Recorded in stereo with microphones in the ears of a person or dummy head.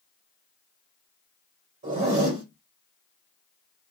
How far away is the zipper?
About 1.9 m.